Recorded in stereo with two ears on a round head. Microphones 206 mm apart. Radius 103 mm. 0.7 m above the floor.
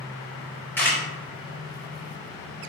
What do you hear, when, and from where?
0.8 s a camera shutter: 10° left (ahead or behind), 2 m